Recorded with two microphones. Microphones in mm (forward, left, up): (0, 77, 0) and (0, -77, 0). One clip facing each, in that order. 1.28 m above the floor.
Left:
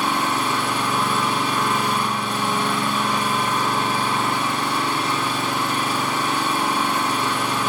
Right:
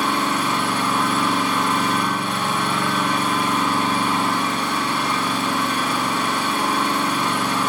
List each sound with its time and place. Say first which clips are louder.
0.0 s an engine running: right 1 dB; 25° left (ahead or behind), 1.9 m